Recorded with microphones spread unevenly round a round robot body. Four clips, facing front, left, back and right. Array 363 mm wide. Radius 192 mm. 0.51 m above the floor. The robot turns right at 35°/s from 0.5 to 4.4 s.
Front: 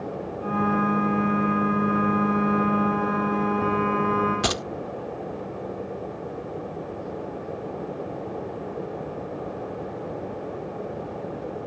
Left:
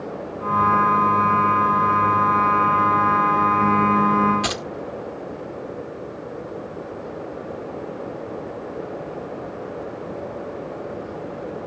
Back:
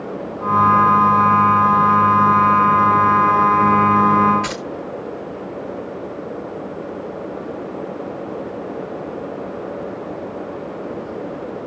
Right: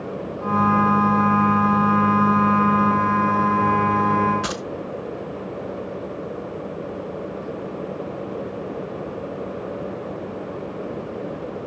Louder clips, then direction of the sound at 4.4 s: Left 1 dB, back 1 dB; 20° left.